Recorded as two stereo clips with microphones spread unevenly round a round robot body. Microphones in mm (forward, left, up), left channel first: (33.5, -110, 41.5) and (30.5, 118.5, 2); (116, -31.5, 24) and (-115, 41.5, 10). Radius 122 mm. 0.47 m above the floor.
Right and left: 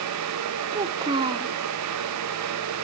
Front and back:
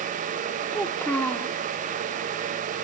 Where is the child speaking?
65° left, 0.9 m.